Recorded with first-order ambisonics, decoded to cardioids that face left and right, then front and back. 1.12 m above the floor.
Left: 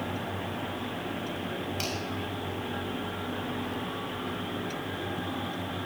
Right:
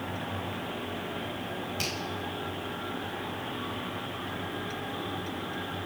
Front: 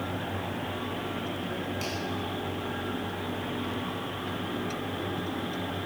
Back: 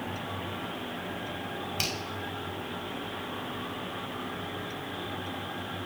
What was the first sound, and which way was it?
A finger snap, straight behind.